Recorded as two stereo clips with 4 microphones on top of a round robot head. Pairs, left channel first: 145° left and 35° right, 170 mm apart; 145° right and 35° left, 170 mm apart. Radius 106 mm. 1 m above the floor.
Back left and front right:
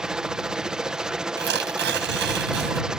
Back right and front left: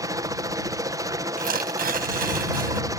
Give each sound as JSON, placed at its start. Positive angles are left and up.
{"t": 0.0, "sound": "a helicopter", "azimuth_deg": 45}
{"t": 1.4, "sound": "tearing paper", "azimuth_deg": -5}